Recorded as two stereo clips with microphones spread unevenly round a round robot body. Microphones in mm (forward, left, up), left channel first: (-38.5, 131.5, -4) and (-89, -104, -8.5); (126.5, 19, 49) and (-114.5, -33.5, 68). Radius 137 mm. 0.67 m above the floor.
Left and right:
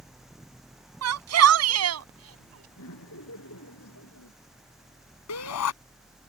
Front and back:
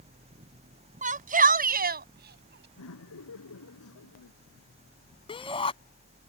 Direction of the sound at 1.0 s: 110° right.